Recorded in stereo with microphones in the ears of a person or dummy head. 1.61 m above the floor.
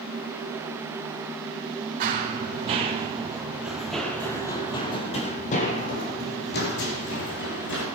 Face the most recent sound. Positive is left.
turn(degrees=60)  # may be behind; listen again after turning